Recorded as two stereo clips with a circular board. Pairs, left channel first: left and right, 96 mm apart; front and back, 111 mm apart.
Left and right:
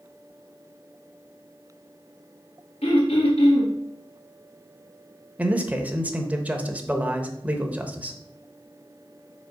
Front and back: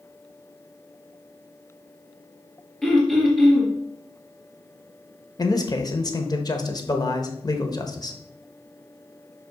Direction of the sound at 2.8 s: 85° left.